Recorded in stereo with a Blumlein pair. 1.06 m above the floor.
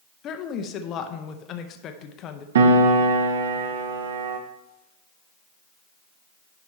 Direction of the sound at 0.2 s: 30° left.